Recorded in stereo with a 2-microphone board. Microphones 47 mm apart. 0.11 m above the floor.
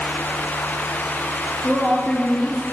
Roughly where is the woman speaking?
Centre.